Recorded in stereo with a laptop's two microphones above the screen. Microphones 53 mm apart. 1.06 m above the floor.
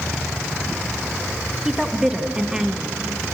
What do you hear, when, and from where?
1.6 s a woman speaking: 10° right (ahead or behind), 1.6 m